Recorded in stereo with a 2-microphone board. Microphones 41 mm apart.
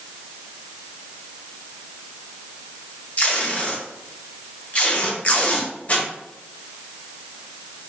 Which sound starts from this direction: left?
Tape being pulled, at 3.2 s.